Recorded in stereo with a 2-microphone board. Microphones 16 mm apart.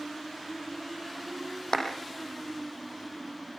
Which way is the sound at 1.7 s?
45° left (ahead or behind).